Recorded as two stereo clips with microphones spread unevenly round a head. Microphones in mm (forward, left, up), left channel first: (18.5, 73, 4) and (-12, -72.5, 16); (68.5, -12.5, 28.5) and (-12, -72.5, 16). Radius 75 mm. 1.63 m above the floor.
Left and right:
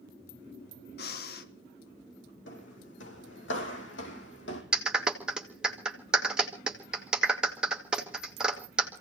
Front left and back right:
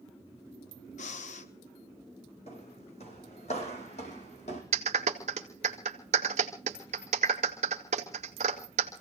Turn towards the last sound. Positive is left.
turn(degrees=175)